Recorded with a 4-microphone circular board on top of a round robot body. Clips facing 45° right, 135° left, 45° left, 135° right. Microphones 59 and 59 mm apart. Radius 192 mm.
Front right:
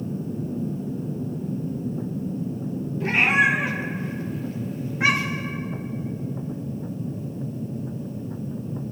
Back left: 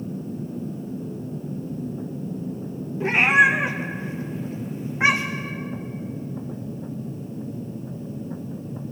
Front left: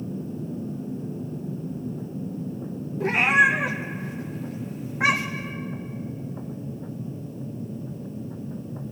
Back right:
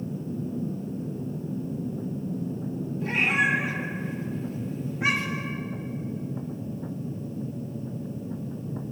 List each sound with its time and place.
3.0 s a cat meowing: 65° left, 0.7 m